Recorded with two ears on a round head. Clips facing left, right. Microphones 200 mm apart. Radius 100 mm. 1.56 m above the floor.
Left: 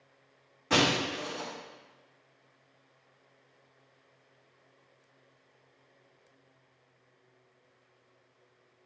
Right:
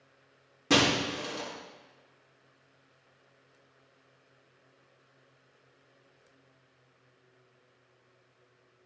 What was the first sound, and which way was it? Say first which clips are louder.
Breaking glass: right 2 dB; 60° right (ahead or behind).